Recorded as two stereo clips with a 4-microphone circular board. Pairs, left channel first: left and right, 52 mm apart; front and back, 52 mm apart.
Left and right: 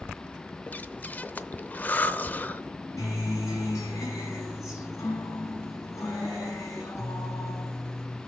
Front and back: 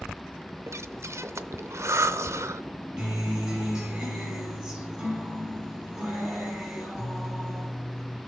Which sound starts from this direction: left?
A guitar, at 3.0 s.